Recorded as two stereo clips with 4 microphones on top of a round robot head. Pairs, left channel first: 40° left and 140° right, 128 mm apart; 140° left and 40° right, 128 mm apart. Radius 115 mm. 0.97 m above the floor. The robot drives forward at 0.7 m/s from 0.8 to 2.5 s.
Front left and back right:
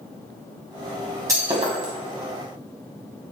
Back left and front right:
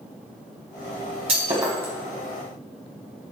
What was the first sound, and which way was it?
Breaking glass, 75° right.